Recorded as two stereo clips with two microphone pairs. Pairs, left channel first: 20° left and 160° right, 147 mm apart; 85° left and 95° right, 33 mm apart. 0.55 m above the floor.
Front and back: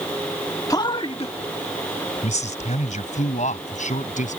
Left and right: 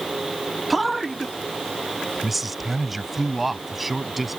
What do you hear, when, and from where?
0.7 s a man speaking: 5° right; by 4.4 s 10° right